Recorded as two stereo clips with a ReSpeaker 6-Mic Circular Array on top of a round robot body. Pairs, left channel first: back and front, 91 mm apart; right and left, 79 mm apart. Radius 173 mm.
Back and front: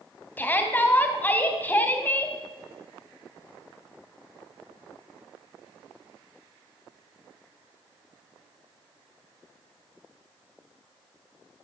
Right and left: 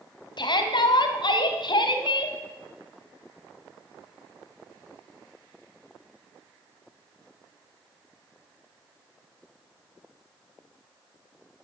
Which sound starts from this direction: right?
A shout, at 0.4 s.